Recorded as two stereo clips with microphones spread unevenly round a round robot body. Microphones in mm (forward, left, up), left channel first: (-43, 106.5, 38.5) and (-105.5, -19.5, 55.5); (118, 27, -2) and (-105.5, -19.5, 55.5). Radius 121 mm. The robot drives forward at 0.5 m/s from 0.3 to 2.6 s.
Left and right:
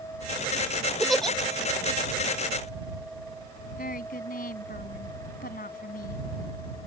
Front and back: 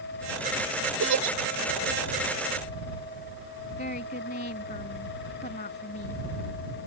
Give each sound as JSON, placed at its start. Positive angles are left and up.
{"t": 1.0, "sound": "a giggle", "azimuth_deg": 150}
{"t": 3.8, "sound": "a woman speaking", "azimuth_deg": 65}